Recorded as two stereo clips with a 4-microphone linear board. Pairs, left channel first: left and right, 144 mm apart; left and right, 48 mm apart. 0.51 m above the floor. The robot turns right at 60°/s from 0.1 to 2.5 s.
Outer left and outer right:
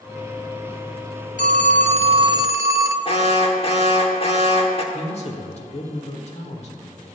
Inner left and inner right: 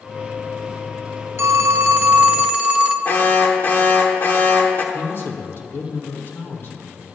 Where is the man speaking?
50° left (ahead or behind), 1.3 m.